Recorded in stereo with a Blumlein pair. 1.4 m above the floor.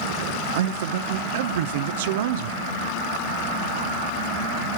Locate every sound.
0.6 s a man speaking: 55° right, 0.9 m